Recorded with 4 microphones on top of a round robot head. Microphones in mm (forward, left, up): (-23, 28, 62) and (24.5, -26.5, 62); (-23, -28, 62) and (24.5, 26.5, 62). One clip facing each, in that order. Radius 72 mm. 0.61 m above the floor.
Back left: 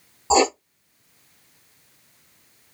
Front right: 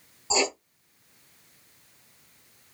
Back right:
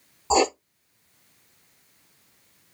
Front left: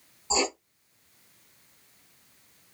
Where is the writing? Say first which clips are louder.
Back left 9 dB, back right 8 dB; 175° right, 0.6 m.